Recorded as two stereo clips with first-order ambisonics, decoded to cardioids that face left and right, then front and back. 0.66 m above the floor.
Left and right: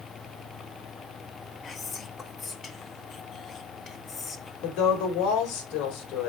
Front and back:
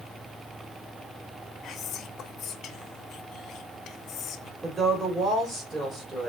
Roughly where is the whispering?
Ahead left.